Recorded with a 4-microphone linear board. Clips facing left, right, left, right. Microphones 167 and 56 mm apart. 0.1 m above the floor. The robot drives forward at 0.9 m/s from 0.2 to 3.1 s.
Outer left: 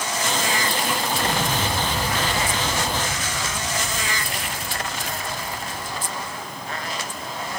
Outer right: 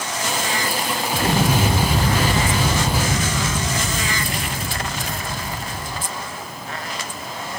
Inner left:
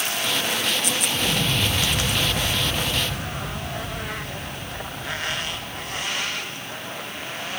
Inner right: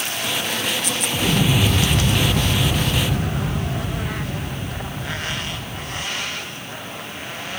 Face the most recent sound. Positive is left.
turn(degrees=-70)  # may be behind; listen again after turning